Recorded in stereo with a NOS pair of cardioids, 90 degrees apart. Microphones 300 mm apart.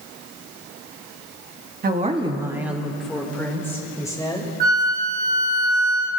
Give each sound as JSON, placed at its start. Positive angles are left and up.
{"t": 1.8, "sound": "a woman speaking", "azimuth_deg": -30, "distance_m": 1.5}
{"t": 4.6, "sound": "a flute", "azimuth_deg": -30, "distance_m": 3.0}